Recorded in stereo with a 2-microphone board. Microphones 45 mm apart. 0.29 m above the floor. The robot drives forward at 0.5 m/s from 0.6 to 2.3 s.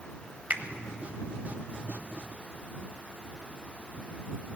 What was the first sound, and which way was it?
A finger snap, 40° right (ahead or behind).